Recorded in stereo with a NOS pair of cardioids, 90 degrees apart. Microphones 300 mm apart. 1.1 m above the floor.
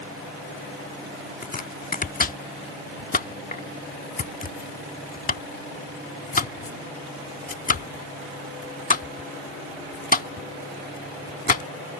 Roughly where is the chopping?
Ahead left.